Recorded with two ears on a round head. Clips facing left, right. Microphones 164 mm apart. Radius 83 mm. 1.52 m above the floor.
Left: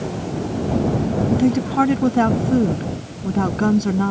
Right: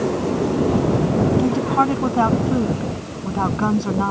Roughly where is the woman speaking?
Centre.